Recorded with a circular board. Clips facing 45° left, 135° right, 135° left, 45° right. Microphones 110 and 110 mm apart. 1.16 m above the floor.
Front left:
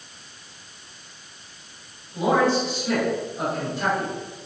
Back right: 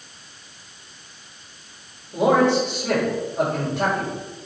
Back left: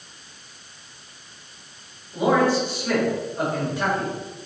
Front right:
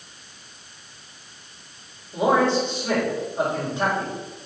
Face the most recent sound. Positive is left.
turn(degrees=-110)